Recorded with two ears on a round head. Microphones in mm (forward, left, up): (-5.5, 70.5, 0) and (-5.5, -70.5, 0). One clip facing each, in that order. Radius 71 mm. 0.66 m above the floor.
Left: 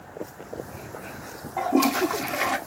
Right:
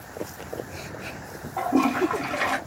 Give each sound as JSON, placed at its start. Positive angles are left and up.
{"t": 1.6, "sound": "a toilet flushing", "side_deg": 5, "distance_m": 0.6}